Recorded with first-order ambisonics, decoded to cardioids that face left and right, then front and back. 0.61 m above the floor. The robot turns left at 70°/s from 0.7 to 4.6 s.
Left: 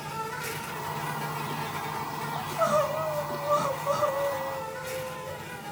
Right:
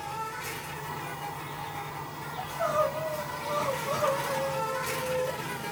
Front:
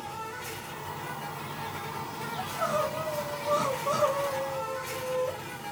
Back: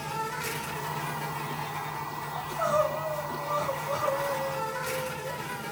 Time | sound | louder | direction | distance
0.0 | an insect | left 1 dB, back 5 dB | 155° left | 0.7 m
2.4 | crying | left 2 dB, back 3 dB | 125° left | 0.6 m